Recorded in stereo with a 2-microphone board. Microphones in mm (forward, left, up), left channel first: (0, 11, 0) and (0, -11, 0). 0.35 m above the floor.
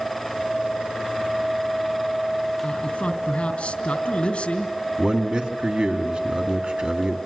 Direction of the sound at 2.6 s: 60° left (ahead or behind).